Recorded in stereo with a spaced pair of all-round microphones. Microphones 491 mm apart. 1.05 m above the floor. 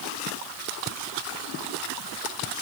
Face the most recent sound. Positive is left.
No sound to turn to.